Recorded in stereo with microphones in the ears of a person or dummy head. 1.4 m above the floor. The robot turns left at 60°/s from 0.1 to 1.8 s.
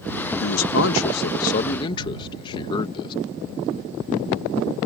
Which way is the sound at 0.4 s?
110° left.